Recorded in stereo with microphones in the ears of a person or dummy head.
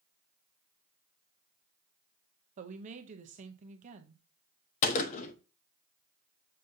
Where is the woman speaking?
40° right (ahead or behind), 0.8 m.